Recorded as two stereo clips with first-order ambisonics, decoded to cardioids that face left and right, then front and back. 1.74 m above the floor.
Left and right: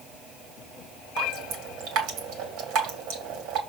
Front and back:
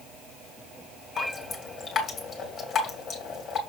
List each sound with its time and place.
1.2 s dripping: 70° right, 2.0 m